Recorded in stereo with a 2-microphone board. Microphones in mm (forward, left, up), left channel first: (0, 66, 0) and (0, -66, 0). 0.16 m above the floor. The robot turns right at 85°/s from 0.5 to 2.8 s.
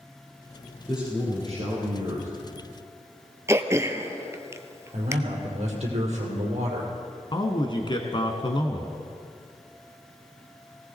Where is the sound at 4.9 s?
55° right (ahead or behind), 4.5 m.